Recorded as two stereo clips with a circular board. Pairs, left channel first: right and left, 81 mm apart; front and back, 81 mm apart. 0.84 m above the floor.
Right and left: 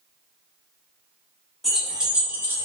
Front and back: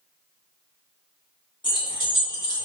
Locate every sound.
1.6 s keys jangling: straight ahead, 1.1 m; by 2.7 s 35° left, 0.8 m